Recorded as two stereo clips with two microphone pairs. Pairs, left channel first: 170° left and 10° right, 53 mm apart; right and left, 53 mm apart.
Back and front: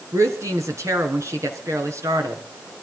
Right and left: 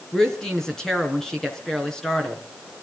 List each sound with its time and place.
0.1 s a woman speaking: 10° right, 4 m